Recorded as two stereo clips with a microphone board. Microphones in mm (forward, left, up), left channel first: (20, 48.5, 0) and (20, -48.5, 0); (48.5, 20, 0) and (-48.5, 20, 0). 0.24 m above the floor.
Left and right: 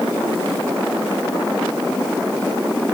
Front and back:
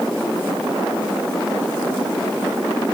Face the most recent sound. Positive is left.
No sound to turn to.